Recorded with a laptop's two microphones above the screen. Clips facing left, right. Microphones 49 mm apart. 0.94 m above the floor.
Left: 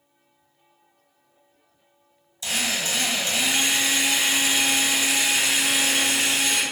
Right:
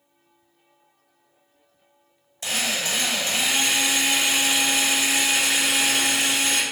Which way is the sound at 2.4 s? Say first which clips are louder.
Even; 55° right (ahead or behind).